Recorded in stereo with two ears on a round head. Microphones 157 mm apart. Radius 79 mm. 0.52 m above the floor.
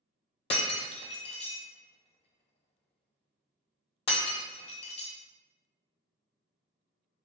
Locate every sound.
0.5 s breaking glass: 35° left (ahead or behind), 0.6 m